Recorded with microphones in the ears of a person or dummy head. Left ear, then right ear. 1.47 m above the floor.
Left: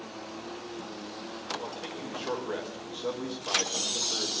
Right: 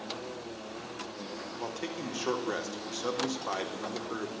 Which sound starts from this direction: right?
A man speaking, at 1.6 s.